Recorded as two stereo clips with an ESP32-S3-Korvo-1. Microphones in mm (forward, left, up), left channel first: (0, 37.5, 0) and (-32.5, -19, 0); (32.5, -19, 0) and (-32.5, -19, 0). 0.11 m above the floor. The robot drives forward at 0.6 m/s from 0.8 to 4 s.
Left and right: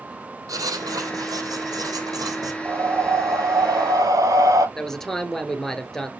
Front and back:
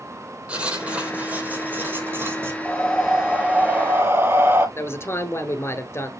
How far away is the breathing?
About 0.9 m.